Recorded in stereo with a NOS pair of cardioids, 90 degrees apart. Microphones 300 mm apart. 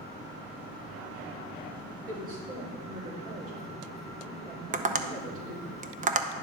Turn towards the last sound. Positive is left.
turn(degrees=-25)